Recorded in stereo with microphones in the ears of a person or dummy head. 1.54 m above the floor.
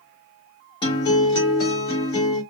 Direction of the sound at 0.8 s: 25° left (ahead or behind).